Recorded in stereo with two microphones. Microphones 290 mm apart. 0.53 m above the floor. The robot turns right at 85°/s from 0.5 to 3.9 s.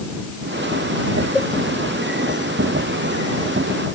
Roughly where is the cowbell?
Centre.